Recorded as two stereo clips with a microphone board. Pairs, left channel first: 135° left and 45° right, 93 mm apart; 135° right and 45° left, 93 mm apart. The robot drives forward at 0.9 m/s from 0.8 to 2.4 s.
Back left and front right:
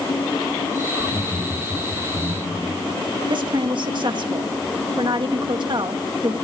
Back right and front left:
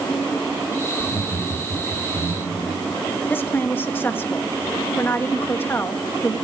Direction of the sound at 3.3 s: 70° right.